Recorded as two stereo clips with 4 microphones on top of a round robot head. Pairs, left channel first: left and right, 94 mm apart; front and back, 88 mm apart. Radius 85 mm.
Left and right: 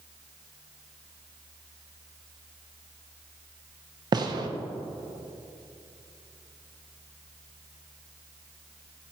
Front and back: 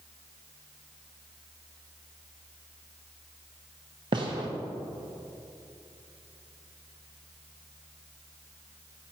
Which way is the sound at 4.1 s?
135° right.